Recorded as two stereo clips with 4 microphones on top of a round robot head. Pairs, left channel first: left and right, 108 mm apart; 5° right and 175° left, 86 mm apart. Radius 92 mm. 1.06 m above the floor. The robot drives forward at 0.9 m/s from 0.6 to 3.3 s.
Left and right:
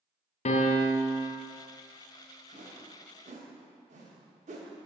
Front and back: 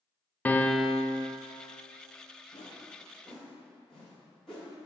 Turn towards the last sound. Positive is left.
turn(degrees=-95)